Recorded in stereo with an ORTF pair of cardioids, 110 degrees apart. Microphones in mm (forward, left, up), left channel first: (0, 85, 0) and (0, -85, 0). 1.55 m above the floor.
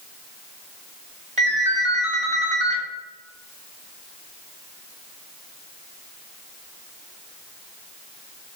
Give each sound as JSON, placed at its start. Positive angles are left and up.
{"t": 1.4, "sound": "a ringtone", "azimuth_deg": -40, "distance_m": 1.3}